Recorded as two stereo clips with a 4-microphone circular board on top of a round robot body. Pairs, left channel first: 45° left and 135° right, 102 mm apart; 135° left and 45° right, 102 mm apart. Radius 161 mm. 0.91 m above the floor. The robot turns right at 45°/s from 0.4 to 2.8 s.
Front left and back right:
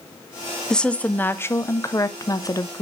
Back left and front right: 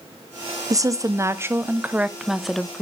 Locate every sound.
0.7 s a woman speaking: 35° right, 0.8 m; by 2.8 s 60° left, 0.8 m